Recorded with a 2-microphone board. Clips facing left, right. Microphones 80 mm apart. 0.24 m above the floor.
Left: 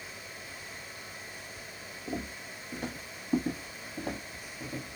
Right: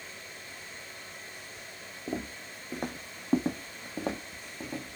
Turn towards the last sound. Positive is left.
turn(degrees=-60)  # may be behind; listen again after turning